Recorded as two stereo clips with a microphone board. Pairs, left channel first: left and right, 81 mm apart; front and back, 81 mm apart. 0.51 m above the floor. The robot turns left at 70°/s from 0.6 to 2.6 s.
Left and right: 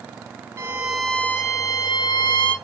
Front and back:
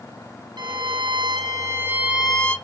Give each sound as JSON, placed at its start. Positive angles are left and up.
{"t": 0.6, "sound": "a violin", "azimuth_deg": -150, "distance_m": 0.7}